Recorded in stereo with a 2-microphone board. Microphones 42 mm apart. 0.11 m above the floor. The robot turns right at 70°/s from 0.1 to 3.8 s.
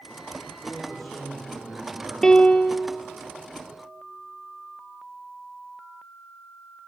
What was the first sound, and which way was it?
A man speaking, 150° left.